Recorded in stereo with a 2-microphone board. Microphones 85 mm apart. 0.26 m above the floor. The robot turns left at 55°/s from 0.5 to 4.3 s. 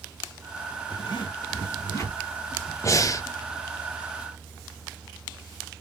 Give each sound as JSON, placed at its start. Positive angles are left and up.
{"t": 0.9, "sound": "a zipper", "side_deg": 60, "distance_m": 2.0}
{"t": 2.8, "sound": "breathing", "side_deg": 35, "distance_m": 0.6}